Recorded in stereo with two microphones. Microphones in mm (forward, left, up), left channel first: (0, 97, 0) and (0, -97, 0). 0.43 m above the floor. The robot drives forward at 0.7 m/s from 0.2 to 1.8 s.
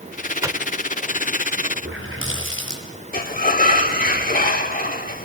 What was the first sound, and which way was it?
A microwave, 15° right (ahead or behind).